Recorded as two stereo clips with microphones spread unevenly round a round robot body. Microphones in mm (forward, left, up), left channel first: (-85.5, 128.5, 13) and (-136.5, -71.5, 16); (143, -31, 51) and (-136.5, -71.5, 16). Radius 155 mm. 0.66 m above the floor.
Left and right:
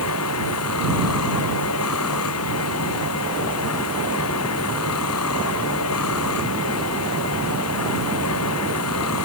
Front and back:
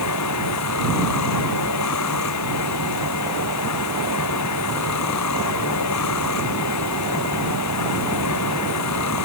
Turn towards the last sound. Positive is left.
turn(degrees=50)